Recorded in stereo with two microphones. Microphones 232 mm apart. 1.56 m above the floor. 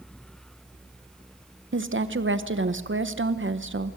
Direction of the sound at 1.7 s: 60° right (ahead or behind).